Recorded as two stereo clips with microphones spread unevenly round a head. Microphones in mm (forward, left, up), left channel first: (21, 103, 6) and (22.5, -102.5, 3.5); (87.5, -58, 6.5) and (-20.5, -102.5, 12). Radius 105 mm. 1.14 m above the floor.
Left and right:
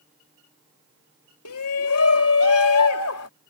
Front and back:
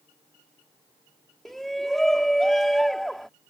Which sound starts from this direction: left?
A shout, at 1.4 s.